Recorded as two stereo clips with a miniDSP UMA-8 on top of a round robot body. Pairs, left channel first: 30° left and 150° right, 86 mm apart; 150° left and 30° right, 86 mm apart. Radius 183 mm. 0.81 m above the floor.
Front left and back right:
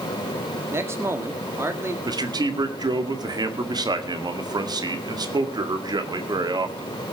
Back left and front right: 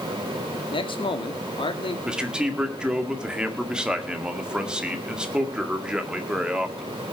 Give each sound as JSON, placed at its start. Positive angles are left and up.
{"t": 0.7, "sound": "a man speaking", "azimuth_deg": 150, "distance_m": 2.0}
{"t": 2.0, "sound": "a man speaking", "azimuth_deg": -110, "distance_m": 2.0}